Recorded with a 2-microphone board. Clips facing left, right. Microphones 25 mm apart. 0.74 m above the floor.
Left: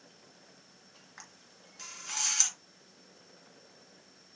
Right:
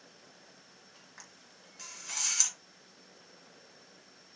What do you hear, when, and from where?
1.2 s a camera shutter: 15° left (ahead or behind), 3 m